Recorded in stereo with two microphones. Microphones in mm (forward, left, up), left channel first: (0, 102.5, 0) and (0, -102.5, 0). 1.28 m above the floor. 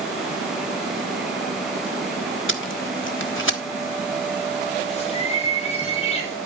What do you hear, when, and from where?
2.5 s tape being pulled: 80° left, 1.2 m
4.8 s a bird: 30° left (ahead or behind), 3 m